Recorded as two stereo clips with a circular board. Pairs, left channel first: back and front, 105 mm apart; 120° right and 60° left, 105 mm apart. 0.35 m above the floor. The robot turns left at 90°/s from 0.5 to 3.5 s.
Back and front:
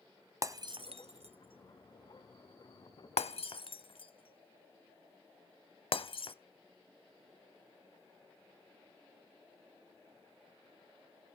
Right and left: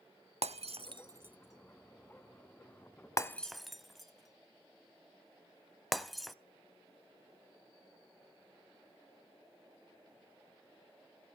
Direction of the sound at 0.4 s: 60° left.